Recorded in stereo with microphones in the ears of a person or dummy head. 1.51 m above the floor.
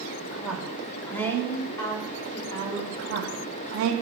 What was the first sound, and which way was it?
A woman speaking, 5° right (ahead or behind).